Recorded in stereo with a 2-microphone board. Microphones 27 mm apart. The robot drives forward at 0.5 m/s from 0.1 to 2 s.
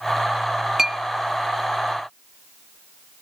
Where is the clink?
15° right (ahead or behind), 0.7 m.